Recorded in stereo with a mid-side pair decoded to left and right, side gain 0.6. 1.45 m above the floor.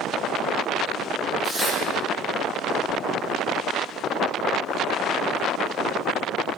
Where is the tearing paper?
30° right, 4 m.